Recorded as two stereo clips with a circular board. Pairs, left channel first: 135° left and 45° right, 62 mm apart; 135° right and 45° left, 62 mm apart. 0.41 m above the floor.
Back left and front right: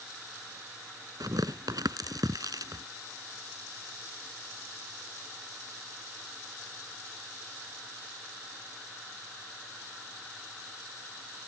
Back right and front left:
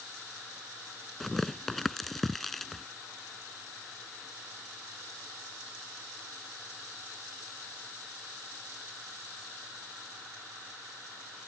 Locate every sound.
1.2 s tearing paper: 50° right